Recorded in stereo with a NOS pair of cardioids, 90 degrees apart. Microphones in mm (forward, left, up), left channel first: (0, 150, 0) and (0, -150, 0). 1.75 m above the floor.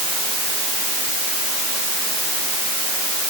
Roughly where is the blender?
No blender in this recording.